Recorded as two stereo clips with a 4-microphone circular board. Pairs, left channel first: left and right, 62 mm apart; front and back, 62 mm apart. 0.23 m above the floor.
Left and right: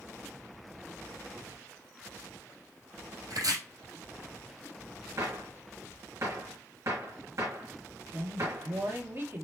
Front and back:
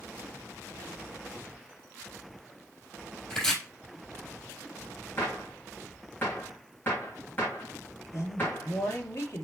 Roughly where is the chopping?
Right.